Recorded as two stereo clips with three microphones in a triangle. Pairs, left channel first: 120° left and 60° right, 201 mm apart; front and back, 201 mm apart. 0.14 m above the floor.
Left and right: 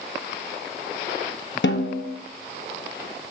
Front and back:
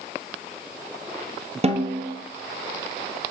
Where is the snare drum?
125° left, 0.6 m.